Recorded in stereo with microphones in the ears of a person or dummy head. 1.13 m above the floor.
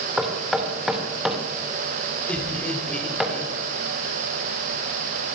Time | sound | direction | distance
0.2 | knocking | centre (ahead or behind) | 2.5 m
2.3 | laughter | 5° left (ahead or behind) | 4 m